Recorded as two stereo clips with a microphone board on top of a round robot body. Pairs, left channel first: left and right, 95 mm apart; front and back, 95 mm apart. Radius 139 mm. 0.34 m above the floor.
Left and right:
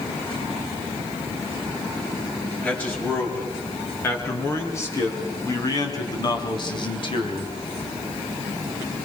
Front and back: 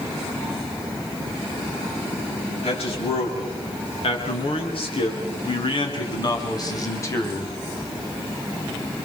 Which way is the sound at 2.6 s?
15° left.